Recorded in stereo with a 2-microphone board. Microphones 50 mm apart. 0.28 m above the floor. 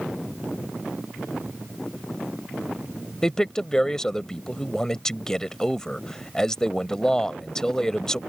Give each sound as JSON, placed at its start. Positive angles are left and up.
{"t": 3.2, "sound": "a man speaking", "side_deg": 15}